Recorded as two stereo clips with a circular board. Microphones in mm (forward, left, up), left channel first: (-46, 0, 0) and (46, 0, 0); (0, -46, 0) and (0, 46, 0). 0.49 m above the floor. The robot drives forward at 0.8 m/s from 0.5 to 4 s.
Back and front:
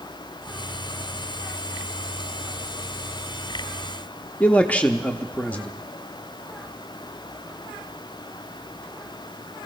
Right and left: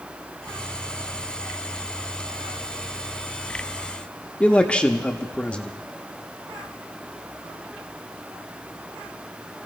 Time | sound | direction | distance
4.4 | a man speaking | 145° right | 0.7 m